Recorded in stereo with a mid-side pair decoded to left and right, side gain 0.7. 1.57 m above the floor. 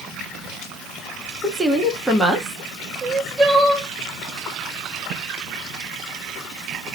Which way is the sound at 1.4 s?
10° right.